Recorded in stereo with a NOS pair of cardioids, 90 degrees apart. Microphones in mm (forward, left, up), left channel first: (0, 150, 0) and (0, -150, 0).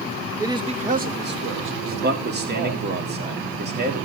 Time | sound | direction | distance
0.4 | a man speaking | 10° right | 1.4 m
1.9 | a man speaking | 35° right | 3 m